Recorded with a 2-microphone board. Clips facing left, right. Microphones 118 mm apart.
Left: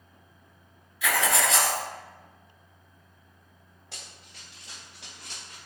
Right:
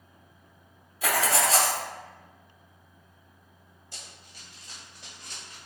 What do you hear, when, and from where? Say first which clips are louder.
1.0 s writing: even; 40° right (ahead or behind), 0.8 m
3.9 s running footsteps: left 1 dB; 75° left (ahead or behind), 1.7 m; by 5.6 s 65° left (ahead or behind), 2.5 m